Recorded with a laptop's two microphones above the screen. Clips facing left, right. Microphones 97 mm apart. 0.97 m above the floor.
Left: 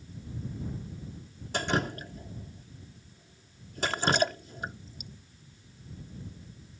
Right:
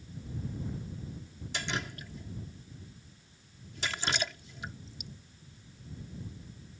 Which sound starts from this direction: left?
Dripping, at 1.5 s.